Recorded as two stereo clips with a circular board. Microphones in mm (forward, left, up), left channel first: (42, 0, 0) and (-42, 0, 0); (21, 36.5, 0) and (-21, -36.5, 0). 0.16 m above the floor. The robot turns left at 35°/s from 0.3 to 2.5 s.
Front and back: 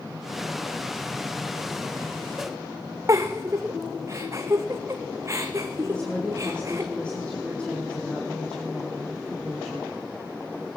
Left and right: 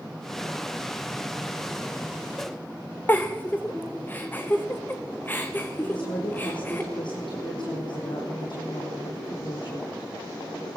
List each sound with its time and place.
3.1 s a giggle: 125° left, 2.5 m
5.8 s a woman speaking: 80° left, 6 m